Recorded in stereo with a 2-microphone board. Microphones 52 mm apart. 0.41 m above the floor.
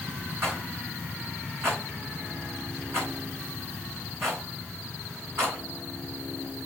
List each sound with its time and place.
0.4 s a rattle: 55° right (ahead or behind), 5 m